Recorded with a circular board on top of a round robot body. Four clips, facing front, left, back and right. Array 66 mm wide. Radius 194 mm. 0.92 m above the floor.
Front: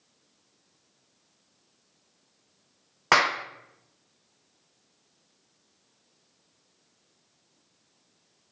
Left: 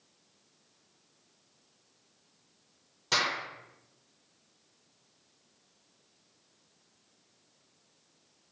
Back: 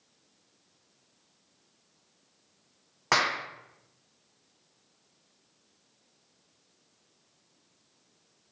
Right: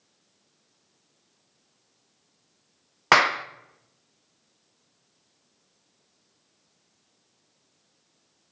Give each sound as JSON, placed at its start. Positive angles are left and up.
{"t": 3.1, "sound": "a clap", "azimuth_deg": -70, "distance_m": 0.7}